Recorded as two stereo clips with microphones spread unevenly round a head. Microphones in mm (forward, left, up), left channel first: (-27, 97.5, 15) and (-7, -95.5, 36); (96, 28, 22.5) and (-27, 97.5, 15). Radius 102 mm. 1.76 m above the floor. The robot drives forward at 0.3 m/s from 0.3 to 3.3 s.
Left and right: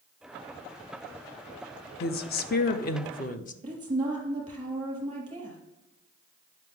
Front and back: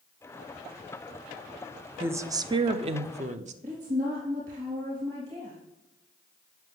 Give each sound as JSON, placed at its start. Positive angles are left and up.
{"t": 2.0, "sound": "a woman speaking", "azimuth_deg": 80, "distance_m": 0.5}
{"t": 3.6, "sound": "a woman speaking", "azimuth_deg": -150, "distance_m": 3.0}